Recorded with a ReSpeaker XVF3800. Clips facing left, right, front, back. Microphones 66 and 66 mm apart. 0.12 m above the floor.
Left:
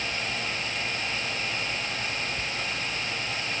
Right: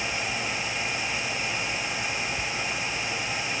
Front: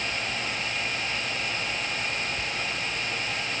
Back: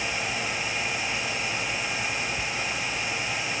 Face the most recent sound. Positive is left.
No sound to turn to.